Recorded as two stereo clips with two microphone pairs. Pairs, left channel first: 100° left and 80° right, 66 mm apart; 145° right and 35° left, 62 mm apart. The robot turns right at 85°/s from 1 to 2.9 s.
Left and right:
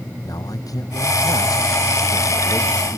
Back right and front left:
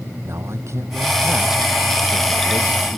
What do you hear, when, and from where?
0.2 s a man speaking: 75° left; by 3.0 s 125° right